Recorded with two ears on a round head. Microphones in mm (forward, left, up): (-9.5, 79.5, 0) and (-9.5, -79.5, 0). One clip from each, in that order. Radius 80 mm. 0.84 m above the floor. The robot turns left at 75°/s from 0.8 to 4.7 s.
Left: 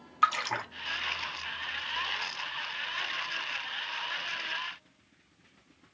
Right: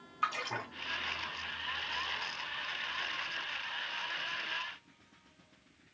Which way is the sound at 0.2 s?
40° left (ahead or behind).